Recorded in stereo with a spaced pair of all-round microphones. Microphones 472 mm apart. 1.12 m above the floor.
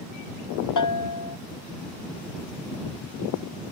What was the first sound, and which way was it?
A bell, 40° left (ahead or behind).